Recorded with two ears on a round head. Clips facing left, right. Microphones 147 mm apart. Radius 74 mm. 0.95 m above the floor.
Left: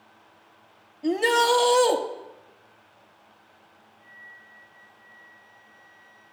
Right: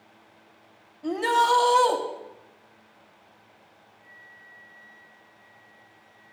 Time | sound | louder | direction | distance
1.0 | a shout | left 2 dB | 25° left (ahead or behind) | 1.6 m
4.0 | a flute | left 1 dB | 20° right (ahead or behind) | 5.5 m